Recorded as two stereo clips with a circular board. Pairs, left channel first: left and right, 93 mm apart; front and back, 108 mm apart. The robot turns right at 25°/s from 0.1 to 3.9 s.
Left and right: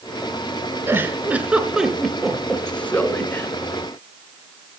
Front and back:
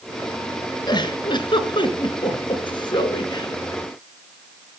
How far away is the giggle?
About 1.9 m.